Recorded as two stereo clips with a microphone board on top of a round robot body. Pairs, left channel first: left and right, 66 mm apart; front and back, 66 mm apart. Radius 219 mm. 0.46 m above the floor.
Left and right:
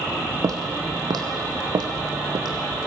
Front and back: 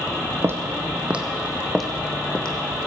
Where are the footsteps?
130° right, 1.3 m; by 2.9 s 70° right, 2 m.